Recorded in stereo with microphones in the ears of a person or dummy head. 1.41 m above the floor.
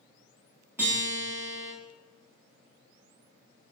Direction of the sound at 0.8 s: 10° right (ahead or behind).